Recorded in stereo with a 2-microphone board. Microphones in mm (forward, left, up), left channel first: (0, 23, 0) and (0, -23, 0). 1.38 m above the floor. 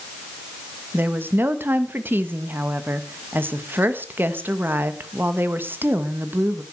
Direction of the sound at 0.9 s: 50° right (ahead or behind).